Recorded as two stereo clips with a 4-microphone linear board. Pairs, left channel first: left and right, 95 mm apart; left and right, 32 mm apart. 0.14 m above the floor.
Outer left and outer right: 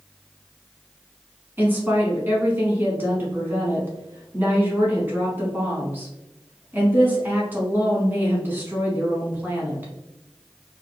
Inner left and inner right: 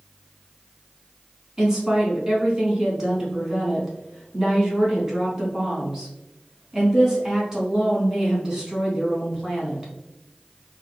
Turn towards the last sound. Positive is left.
turn(degrees=-20)  # may be behind; listen again after turning